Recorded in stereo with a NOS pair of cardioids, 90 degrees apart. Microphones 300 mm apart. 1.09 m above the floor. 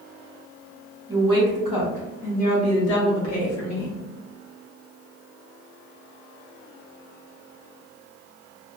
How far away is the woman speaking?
About 1.7 m.